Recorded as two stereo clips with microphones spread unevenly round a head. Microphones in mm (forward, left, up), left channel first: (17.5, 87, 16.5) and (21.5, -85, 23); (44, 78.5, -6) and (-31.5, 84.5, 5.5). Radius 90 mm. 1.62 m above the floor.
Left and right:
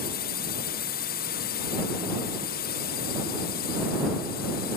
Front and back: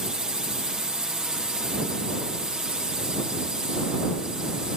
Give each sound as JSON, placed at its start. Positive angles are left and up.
{"t": 0.0, "sound": "a drone", "azimuth_deg": 95}